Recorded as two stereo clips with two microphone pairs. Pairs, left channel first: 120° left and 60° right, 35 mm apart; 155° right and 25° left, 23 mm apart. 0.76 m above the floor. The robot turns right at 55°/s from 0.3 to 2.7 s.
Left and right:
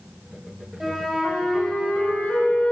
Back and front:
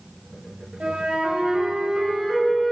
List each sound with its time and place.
0.8 s a flute: 25° left, 1.2 m; by 2.7 s 130° left, 1.2 m